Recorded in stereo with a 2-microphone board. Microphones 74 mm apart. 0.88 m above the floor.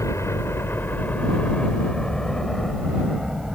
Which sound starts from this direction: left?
A helicopter, at 0.0 s.